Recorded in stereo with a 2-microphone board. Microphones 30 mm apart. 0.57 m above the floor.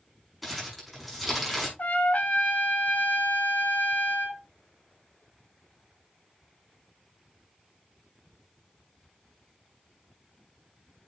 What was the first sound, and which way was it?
Crumpling, 5° right (ahead or behind).